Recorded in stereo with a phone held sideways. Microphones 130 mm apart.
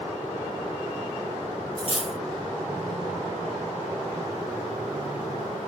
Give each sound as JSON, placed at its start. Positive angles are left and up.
{"t": 1.8, "sound": "cutlery clinking", "side_deg": 45, "distance_m": 0.9}